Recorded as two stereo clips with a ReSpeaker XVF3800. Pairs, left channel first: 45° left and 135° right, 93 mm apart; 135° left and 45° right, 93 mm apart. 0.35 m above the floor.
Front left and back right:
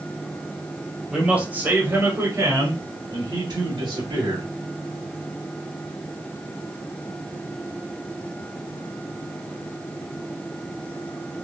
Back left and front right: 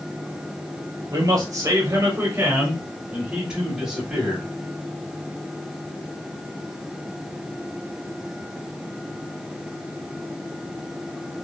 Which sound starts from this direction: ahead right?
A man speaking, at 1.1 s.